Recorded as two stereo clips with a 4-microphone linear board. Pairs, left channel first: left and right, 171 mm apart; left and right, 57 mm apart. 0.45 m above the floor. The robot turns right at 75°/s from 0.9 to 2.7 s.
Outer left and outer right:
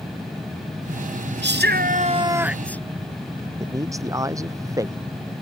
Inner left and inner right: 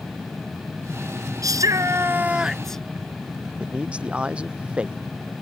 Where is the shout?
90° right; by 2.8 s 10° left.